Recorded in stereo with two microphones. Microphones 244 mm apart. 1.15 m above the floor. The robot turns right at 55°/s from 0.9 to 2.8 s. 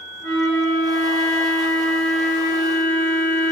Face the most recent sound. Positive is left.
turn(degrees=170)